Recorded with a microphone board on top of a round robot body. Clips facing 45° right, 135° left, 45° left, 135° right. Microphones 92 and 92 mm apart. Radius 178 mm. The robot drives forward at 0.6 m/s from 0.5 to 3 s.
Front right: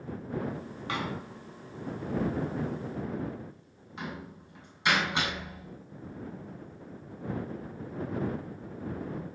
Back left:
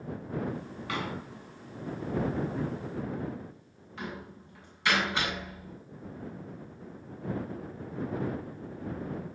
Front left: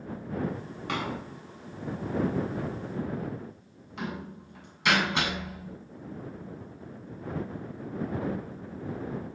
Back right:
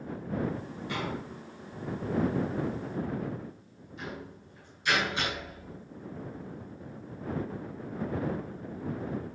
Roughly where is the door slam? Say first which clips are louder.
Front right 1 dB, front left 3 dB; ahead.